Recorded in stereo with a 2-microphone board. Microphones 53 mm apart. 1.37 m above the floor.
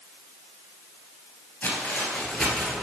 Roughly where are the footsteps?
Left.